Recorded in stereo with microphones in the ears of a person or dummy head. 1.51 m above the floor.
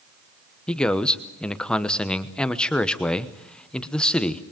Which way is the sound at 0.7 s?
5° left (ahead or behind).